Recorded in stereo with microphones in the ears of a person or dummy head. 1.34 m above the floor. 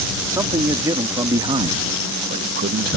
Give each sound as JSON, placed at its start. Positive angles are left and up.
{"t": 0.3, "sound": "a man speaking", "side_deg": -20}